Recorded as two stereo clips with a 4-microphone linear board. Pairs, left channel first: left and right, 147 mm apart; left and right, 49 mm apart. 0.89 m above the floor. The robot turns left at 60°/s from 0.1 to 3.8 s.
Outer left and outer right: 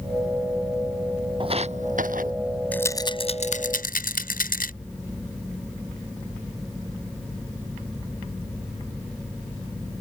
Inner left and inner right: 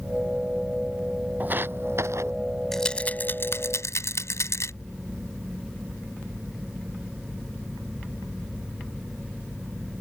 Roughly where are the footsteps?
Right.